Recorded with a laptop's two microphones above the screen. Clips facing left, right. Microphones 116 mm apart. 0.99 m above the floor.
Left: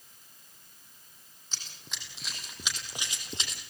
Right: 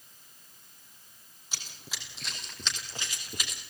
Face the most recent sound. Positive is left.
turn(degrees=30)  # may be behind; listen again after turning